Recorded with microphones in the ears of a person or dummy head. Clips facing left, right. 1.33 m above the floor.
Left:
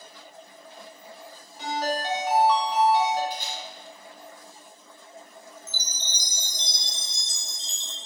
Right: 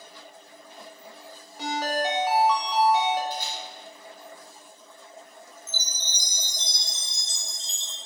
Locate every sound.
1.6 s a ringtone: 60° right (ahead or behind), 1.0 m
3.3 s a camera shutter: 20° left (ahead or behind), 1.0 m
5.7 s a chime: 45° left (ahead or behind), 0.6 m